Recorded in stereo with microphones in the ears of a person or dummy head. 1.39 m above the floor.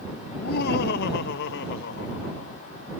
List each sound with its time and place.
0.3 s laughter: 50° left (ahead or behind); by 3.0 s 65° left (ahead or behind)